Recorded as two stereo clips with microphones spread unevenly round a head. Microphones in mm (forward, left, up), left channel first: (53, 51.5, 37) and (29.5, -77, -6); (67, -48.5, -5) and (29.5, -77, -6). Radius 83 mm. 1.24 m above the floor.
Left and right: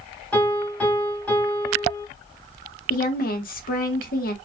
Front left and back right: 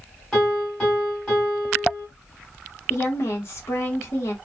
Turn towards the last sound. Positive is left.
turn(degrees=70)